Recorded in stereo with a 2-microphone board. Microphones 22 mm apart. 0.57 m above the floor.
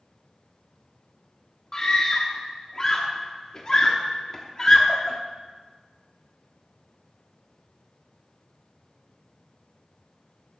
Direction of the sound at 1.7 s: 35° left (ahead or behind).